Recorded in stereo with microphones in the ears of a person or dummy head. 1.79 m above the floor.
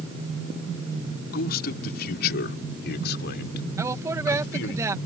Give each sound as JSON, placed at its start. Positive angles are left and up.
{"t": 1.3, "sound": "a man speaking", "side_deg": 60}
{"t": 3.8, "sound": "a woman speaking", "side_deg": -15}